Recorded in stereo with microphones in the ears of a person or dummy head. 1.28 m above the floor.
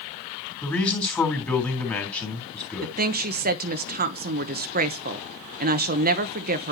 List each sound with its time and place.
0.6 s a man speaking: 10° left (ahead or behind), 3.5 m
2.8 s a woman speaking: 50° right (ahead or behind), 1.0 m